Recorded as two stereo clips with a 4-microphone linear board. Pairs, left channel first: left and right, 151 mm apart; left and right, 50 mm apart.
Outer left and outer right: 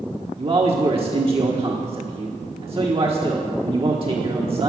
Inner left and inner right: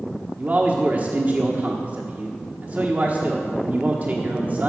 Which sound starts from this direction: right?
A man speaking, at 0.4 s.